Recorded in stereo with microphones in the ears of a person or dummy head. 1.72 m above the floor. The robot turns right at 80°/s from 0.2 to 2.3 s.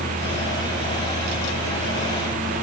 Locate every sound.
Only background noise.